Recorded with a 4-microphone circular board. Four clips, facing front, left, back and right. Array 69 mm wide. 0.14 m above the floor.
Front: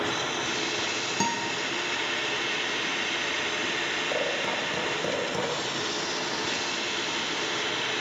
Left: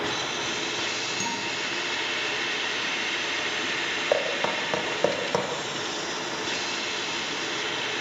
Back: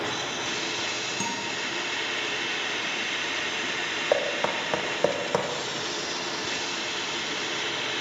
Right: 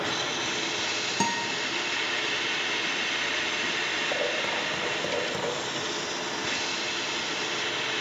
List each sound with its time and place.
1.2 s a guitar: 60° right, 4 m
4.1 s knocking: 145° left, 4.5 m